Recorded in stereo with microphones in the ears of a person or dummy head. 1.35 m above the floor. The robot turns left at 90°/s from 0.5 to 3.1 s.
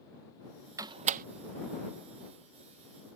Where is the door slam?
15° right (ahead or behind); by 1.2 s 50° right (ahead or behind).